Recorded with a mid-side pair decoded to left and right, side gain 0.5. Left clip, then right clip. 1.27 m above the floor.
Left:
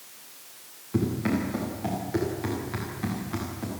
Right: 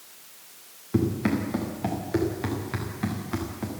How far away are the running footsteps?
About 9.5 m.